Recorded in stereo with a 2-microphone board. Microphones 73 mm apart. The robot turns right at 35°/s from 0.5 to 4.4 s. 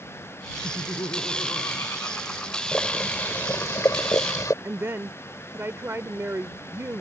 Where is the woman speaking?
35° right (ahead or behind).